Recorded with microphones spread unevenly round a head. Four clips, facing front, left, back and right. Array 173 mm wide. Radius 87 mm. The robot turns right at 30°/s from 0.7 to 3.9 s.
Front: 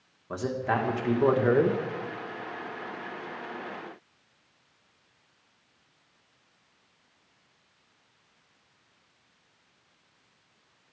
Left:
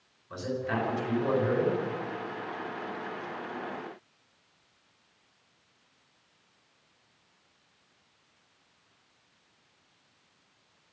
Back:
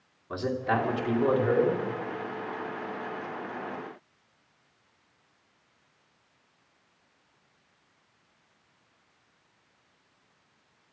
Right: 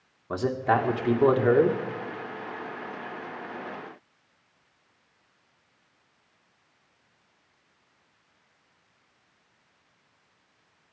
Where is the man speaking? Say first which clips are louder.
Right 8 dB, back 1 dB; 80° right, 2 m; by 1.8 s 45° right, 2 m.